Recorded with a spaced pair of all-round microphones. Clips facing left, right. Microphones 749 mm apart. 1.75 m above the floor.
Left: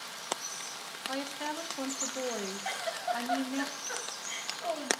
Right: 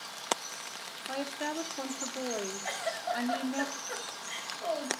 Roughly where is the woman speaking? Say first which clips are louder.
Right 2 dB; left.